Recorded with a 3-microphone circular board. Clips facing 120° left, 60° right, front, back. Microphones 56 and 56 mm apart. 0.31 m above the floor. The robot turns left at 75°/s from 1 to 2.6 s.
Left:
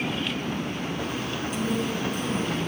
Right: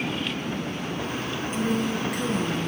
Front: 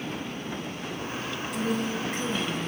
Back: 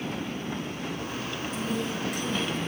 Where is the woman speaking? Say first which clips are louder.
Right 2 dB, front 3 dB; 5° right, 5.5 m; by 2.7 s 85° right, 5.5 m.